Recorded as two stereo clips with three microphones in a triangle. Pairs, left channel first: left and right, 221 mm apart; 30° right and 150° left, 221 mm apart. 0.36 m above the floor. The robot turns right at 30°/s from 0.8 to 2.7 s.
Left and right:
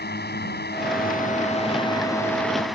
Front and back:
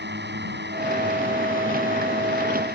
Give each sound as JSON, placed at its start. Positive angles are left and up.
{"t": 0.0, "sound": "a drone", "azimuth_deg": 125}